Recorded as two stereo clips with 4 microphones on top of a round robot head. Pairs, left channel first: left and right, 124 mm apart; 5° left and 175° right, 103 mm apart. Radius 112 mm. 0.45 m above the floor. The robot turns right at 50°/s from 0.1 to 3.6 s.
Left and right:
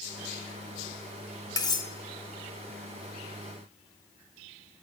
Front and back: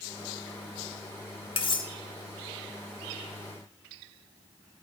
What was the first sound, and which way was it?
Cutlery clinking, 30° left.